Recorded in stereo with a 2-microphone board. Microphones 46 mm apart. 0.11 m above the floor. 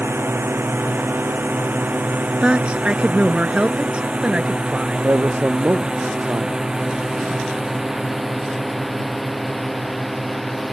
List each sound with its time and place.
0.0 s a drone: 55° right (ahead or behind); by 10.7 s 5° left (ahead or behind)
2.4 s a woman speaking: 25° right (ahead or behind)
5.0 s a man speaking: 55° right (ahead or behind)